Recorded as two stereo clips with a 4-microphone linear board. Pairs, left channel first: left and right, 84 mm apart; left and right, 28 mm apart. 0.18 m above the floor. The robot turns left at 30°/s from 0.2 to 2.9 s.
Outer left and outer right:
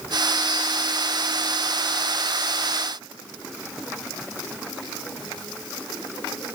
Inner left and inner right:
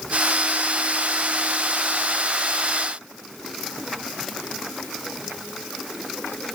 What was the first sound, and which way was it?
Only background noise.